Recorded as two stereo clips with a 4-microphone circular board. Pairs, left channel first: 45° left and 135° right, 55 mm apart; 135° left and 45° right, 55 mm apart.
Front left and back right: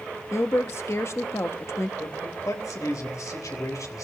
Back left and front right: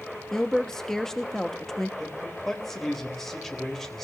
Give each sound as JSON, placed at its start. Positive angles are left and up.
{"t": 0.3, "sound": "a woman speaking", "azimuth_deg": 55, "distance_m": 1.1}
{"t": 2.0, "sound": "a man speaking", "azimuth_deg": 50, "distance_m": 3.0}